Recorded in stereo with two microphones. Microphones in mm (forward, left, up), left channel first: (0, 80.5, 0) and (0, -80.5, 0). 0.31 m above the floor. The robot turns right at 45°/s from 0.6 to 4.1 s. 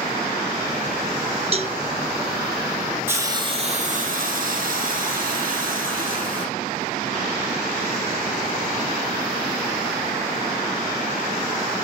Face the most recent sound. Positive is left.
turn(degrees=-120)